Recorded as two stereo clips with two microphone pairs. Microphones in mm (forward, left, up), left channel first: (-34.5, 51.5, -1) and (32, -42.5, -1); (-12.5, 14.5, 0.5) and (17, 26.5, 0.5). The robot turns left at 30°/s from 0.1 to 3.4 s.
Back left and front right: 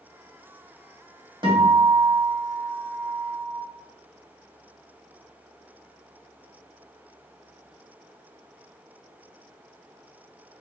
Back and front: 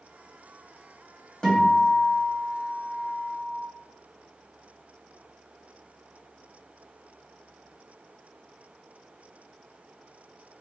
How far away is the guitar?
About 1.5 m.